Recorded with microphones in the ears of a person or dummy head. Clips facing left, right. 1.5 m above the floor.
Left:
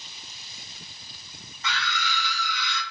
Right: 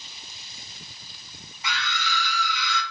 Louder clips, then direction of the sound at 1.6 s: Even; 10° right (ahead or behind).